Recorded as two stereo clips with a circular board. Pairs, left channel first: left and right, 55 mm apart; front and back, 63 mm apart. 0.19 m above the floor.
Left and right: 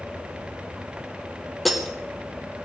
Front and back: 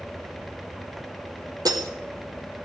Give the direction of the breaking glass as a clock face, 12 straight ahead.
6 o'clock.